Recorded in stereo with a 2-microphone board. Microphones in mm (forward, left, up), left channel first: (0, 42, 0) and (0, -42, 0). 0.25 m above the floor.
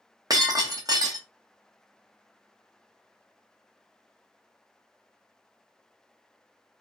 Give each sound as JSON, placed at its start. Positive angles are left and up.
{"t": 0.3, "sound": "breaking glass", "side_deg": -45, "distance_m": 1.0}